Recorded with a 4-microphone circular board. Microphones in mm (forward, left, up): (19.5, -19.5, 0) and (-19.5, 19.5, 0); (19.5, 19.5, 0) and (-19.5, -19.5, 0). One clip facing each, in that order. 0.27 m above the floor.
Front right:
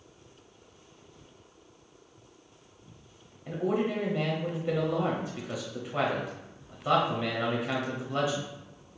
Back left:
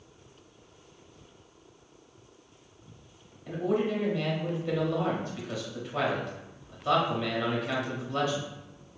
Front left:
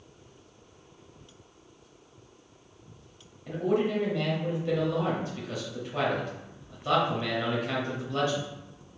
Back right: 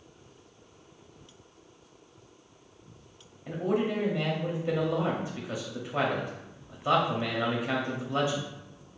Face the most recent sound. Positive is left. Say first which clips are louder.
# back left 1 dB, front left 2 dB
turn(degrees=-100)